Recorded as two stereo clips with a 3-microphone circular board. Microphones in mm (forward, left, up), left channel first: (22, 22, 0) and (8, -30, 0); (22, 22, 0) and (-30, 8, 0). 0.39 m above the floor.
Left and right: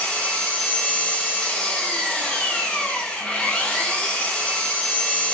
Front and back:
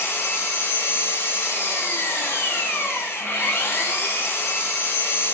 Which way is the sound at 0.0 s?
15° left.